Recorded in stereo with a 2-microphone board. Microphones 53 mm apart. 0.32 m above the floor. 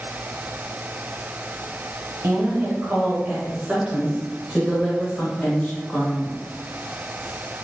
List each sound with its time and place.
2.2 s a woman speaking: 45° right (ahead or behind), 1.3 m; by 6.4 s 20° left (ahead or behind), 1.6 m